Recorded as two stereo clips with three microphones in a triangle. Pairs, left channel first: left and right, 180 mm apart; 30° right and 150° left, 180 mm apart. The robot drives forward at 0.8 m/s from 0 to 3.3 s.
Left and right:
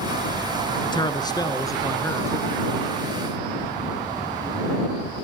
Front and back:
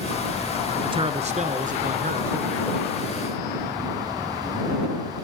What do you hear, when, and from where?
0.8 s a man speaking: 120° left, 1.2 m; by 2.5 s 160° left, 2 m